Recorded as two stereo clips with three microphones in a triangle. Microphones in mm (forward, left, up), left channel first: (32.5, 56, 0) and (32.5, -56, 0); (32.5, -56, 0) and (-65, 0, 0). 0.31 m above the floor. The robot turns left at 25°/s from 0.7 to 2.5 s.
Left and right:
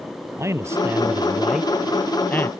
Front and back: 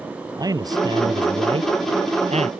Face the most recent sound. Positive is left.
turn(degrees=160)